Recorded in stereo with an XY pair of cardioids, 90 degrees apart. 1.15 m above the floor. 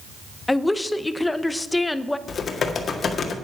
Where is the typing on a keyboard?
55° left, 1.7 m.